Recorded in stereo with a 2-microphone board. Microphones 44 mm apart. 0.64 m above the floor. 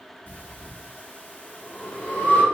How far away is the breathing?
About 0.9 m.